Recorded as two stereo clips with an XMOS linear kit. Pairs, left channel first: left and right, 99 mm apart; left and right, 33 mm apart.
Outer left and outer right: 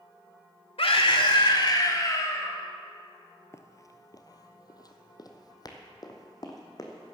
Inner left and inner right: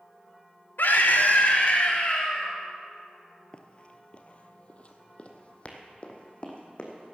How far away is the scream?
About 1.6 m.